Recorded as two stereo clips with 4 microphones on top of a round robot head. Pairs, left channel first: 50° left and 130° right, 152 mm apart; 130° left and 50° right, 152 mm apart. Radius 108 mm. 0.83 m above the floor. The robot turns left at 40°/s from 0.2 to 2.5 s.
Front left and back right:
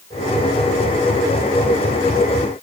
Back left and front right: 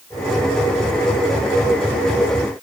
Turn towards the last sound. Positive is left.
No sound to turn to.